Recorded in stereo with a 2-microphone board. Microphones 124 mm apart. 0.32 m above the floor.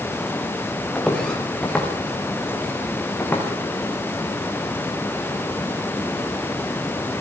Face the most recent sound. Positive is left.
turn(degrees=15)  # may be behind; listen again after turning